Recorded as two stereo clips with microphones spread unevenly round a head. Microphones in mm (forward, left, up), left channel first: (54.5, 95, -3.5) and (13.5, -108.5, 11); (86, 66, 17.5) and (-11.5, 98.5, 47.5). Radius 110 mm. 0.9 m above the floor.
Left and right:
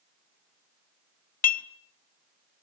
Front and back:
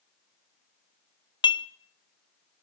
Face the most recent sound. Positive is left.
turn(degrees=30)